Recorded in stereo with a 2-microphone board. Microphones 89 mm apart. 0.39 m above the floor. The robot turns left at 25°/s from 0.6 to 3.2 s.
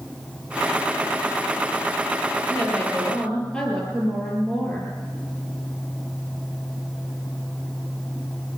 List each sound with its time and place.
2.5 s a woman speaking: 30° left (ahead or behind), 8 m; by 4.9 s 10° left (ahead or behind), 8 m